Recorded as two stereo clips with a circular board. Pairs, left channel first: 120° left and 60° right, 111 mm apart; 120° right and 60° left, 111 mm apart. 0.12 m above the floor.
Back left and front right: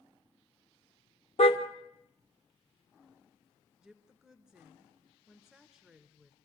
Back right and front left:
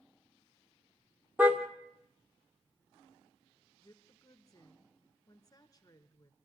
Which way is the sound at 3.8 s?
145° right.